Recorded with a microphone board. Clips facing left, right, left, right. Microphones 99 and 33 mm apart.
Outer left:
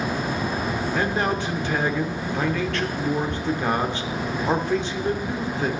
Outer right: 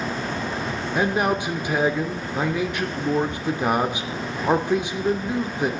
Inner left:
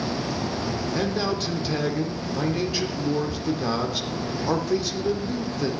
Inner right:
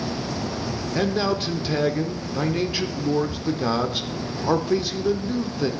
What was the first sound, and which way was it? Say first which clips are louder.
A man speaking: outer right 4 dB, inner right 5 dB; 15° right (ahead or behind).